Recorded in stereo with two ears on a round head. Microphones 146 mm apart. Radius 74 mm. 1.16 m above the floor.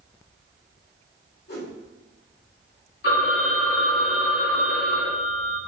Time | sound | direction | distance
1.5 | a whoosh | 65° left (ahead or behind) | 2.0 m
3.0 | a phone ringing | 70° left (ahead or behind) | 2 m